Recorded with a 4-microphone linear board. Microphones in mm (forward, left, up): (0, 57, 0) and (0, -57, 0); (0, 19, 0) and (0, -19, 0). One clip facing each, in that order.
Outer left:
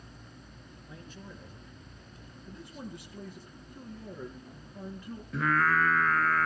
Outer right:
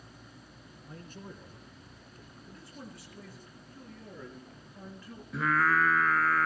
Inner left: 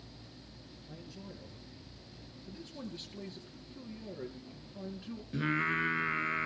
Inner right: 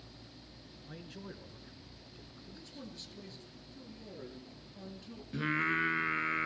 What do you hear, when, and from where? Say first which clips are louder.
0.8 s a man speaking: outer right 2 dB, inner right 2 dB; 45° right (ahead or behind), 2.5 m
2.4 s a man speaking: outer left 5 dB, inner left 5 dB; 20° left (ahead or behind), 4 m
5.3 s singing: even, even; centre (ahead or behind), 0.9 m